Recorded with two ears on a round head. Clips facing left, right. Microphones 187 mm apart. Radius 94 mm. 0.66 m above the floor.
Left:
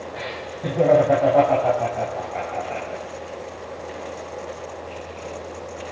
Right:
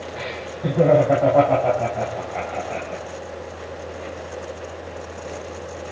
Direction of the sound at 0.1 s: Centre (ahead or behind).